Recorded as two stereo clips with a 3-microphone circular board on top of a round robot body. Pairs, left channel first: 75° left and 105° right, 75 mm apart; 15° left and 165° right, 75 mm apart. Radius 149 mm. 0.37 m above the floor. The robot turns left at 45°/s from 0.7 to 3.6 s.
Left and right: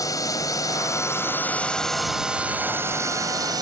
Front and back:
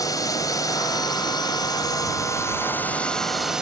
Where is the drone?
45° left; by 3.6 s 85° right.